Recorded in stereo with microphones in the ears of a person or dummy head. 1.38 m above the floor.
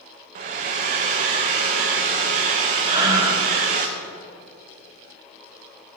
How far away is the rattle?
No rattle in this recording.